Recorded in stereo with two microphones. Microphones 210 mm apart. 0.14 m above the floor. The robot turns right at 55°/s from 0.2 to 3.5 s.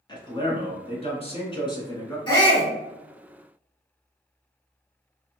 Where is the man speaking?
50° left, 1.1 m; by 2.2 s 155° left, 1.1 m.